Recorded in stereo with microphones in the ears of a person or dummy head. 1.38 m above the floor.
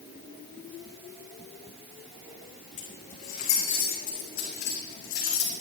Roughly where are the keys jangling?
Left.